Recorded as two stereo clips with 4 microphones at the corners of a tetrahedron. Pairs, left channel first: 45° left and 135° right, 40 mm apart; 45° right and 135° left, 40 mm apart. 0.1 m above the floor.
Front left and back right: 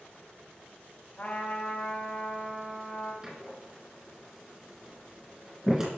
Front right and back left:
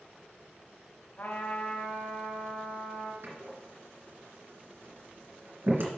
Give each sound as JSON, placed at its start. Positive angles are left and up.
{"t": 1.2, "sound": "a trumpet", "azimuth_deg": -20, "distance_m": 3.5}
{"t": 3.2, "sound": "a door slam", "azimuth_deg": 160, "distance_m": 2.5}